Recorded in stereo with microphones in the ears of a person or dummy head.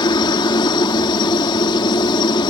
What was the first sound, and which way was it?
A helicopter, 20° left (ahead or behind).